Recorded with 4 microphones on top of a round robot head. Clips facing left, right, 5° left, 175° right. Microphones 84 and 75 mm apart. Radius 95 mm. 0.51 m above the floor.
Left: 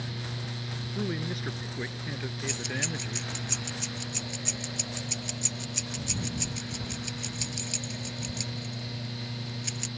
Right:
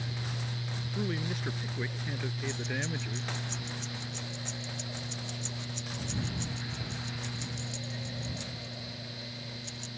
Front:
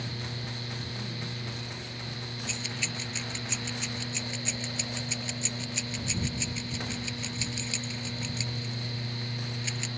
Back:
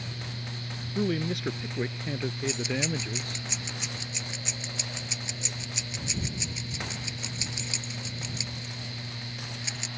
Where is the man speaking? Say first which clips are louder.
Left 2 dB, back 10 dB; 175° left; by 3.5 s straight behind.